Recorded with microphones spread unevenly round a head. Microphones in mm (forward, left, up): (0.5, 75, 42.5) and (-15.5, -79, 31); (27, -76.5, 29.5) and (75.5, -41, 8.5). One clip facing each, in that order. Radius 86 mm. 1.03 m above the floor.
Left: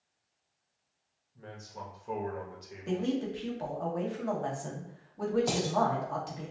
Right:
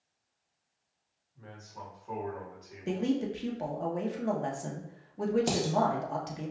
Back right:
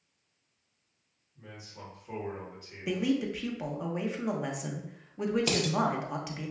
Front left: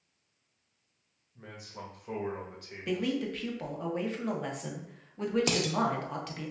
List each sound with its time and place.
1.4 s a man speaking: 30° left, 1.2 m
2.9 s a man speaking: 45° right, 0.9 m
5.5 s dishes clattering: 35° right, 0.9 m